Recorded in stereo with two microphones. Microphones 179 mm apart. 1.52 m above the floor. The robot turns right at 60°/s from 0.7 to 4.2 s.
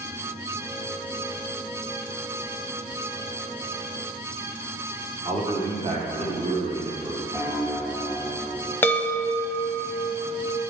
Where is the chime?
10° left (ahead or behind), 0.8 m.